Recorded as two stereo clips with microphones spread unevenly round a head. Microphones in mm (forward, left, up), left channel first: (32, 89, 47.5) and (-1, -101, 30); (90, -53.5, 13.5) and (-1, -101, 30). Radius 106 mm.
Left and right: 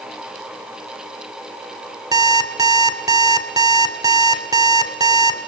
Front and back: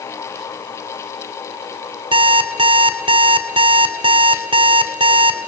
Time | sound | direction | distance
2.1 | an alarm clock | 175° right | 2.0 m